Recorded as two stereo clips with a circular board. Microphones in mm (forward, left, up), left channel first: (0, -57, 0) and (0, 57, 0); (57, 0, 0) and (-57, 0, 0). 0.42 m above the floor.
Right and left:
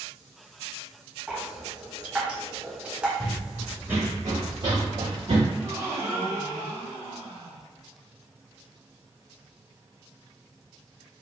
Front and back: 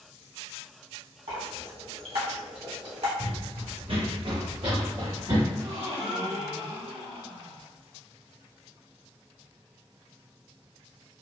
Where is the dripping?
170° left, 1.1 m.